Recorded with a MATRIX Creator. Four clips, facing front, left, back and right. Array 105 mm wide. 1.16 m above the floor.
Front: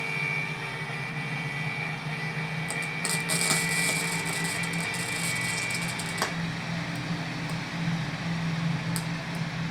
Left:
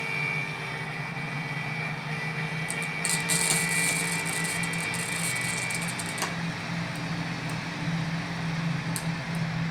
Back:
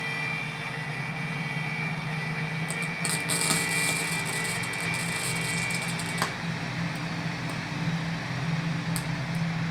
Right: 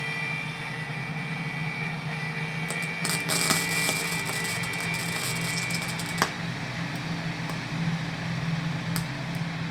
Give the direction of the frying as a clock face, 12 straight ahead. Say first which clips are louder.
Right 1 dB, back 1 dB; 3 o'clock.